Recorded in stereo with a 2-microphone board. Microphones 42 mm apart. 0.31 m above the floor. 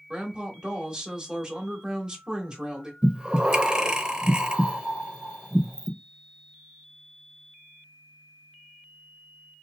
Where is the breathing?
20° right (ahead or behind), 0.6 m.